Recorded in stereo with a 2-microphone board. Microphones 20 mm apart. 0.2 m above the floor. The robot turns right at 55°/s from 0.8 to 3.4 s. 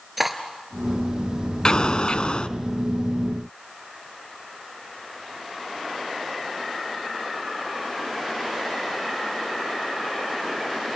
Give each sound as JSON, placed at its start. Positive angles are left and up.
{"t": 0.2, "sound": "cutlery clinking", "side_deg": -5, "distance_m": 2.0}
{"t": 1.6, "sound": "an explosion", "azimuth_deg": 55, "distance_m": 0.9}